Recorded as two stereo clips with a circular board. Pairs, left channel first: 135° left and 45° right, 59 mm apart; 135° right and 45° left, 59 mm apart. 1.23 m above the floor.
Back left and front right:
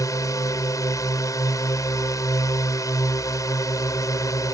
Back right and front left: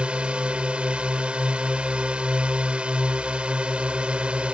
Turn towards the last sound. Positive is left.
turn(degrees=120)